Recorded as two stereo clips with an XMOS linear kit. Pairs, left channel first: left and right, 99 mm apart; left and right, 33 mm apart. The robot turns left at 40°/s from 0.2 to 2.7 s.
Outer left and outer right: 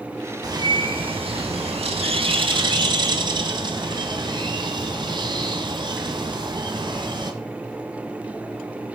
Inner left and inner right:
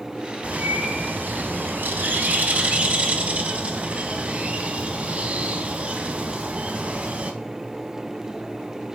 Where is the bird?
40° right, 0.6 m; by 7.3 s 130° right, 0.6 m.